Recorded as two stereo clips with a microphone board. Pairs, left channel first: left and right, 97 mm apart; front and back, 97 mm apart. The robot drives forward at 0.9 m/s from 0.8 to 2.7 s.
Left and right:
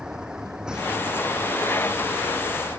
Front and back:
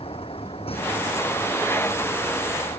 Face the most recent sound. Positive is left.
turn(degrees=-5)